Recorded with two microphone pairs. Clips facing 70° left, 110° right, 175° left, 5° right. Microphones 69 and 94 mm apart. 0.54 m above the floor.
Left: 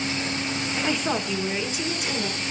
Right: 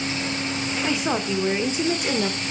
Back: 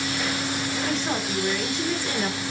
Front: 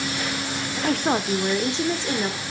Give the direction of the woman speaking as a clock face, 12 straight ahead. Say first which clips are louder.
Right 2 dB, front 8 dB; 1 o'clock.